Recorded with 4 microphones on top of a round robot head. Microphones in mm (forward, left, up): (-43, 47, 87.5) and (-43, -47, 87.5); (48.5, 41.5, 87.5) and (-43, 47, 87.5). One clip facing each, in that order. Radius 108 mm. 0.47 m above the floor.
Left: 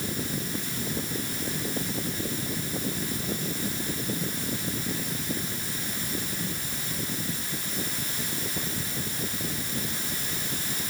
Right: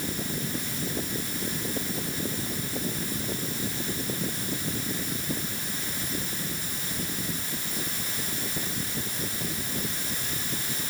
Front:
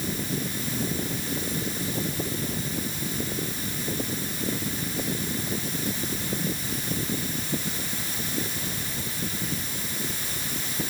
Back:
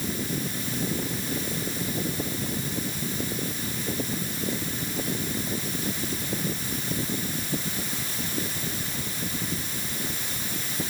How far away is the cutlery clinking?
No cutlery clinking in this recording.